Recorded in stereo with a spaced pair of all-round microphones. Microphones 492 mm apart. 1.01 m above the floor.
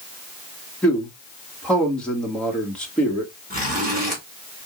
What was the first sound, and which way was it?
A man speaking, centre (ahead or behind).